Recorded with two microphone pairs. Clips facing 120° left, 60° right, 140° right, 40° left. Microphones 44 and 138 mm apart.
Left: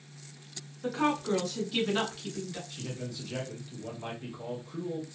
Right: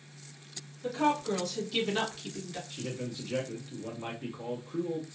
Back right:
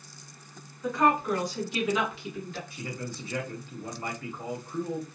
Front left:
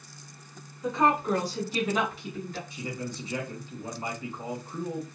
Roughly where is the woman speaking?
Left.